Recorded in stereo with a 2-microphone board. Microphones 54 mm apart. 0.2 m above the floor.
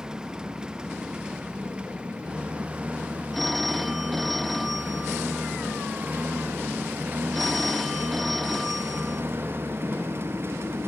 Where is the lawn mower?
15° right (ahead or behind); by 10.9 s 50° right (ahead or behind).